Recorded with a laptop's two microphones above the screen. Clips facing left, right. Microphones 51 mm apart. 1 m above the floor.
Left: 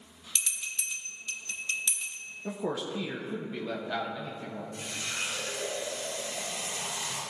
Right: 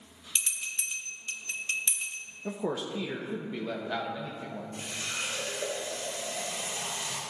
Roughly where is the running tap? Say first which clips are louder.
Even; right.